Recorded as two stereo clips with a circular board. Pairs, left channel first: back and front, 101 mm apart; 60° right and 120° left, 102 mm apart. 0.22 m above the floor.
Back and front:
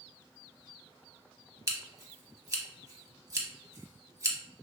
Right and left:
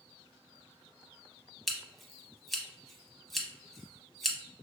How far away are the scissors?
About 0.6 m.